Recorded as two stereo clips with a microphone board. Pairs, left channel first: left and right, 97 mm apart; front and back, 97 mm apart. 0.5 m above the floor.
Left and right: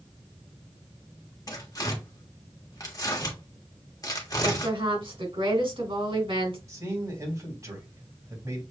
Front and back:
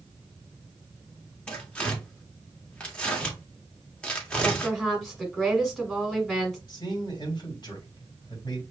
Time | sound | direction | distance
1.5 | tearing paper | 75° left | 1.3 m
4.4 | a woman speaking | 90° right | 2.0 m
6.7 | a man speaking | 35° right | 2.5 m